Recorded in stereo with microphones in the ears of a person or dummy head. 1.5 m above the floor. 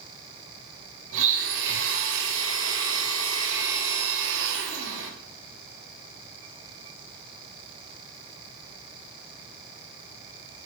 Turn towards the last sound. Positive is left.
turn(degrees=-65)  # may be behind; listen again after turning